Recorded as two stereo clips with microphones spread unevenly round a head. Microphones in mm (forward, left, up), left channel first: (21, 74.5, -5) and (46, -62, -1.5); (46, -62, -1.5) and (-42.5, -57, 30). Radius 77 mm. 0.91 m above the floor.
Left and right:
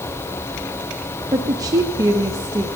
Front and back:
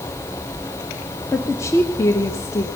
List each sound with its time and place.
1.3 s a woman speaking: 20° right, 1.2 m